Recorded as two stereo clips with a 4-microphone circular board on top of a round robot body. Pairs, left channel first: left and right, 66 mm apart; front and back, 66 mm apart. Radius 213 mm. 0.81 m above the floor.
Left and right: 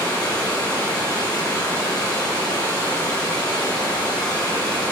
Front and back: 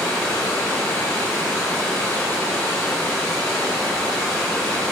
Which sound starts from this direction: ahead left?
Running water, at 0.0 s.